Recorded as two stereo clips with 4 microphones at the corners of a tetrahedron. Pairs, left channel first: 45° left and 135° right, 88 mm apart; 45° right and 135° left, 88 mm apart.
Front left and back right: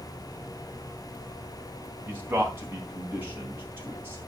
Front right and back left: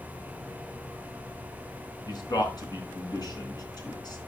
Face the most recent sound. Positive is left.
turn(degrees=-75)